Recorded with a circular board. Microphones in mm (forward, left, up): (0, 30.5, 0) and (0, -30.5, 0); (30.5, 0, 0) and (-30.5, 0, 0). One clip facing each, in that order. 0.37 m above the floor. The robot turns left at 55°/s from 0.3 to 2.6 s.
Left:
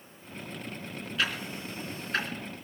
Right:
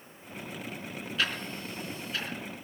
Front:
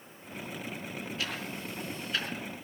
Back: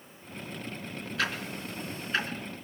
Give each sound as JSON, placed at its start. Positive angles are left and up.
{"t": 1.2, "sound": "ticking", "azimuth_deg": -175, "distance_m": 3.0}